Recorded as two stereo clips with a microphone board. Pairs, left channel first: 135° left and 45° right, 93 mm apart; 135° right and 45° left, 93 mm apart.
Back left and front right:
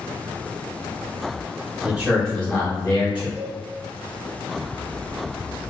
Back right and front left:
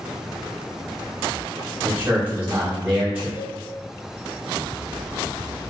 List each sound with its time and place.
1.8 s a man speaking: 5° left, 0.8 m; by 3.3 s 130° left, 1.1 m
3.4 s a cowbell: 120° right, 1.2 m